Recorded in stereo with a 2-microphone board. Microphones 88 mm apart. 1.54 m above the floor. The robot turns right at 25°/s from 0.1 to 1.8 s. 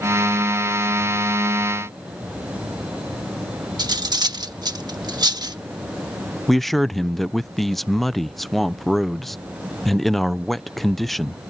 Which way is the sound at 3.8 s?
50° right (ahead or behind).